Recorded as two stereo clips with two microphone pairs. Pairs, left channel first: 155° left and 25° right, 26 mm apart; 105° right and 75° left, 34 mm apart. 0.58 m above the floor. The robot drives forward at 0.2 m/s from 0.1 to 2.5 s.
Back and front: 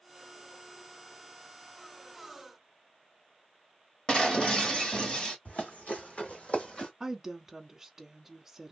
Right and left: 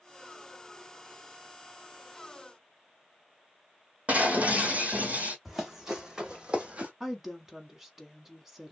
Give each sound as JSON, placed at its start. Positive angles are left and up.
{"t": 4.1, "sound": "breaking glass", "azimuth_deg": 115, "distance_m": 1.4}
{"t": 5.5, "sound": "running footsteps", "azimuth_deg": 160, "distance_m": 1.7}
{"t": 7.0, "sound": "a woman speaking", "azimuth_deg": 20, "distance_m": 0.7}